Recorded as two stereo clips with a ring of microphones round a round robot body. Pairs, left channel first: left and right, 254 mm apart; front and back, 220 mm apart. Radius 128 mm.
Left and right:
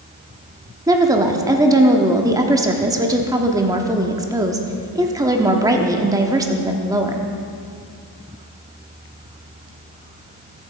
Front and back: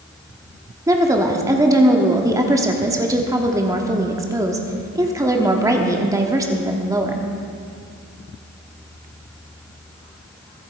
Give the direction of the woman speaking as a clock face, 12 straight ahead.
5 o'clock.